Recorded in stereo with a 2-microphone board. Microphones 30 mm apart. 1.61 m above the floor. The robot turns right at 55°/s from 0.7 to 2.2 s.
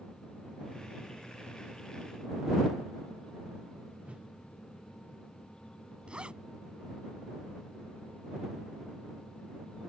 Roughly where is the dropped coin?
No dropped coin in this recording.